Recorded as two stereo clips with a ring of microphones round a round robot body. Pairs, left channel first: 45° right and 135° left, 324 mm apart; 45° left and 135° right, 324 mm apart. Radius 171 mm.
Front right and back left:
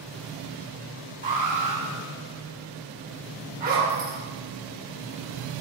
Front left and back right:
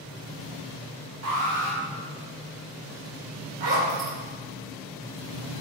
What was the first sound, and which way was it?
An alarm, 165° right.